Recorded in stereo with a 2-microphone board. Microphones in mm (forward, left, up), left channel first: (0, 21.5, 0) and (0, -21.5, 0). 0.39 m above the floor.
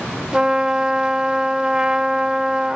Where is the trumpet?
20° right (ahead or behind), 0.8 m.